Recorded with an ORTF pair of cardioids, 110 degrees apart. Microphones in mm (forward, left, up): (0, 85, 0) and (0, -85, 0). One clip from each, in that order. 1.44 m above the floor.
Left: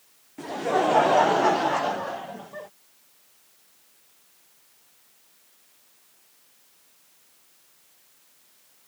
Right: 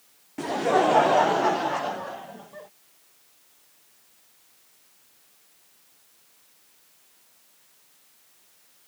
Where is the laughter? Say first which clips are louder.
Right 2 dB; 30° right; by 2.7 s 25° left.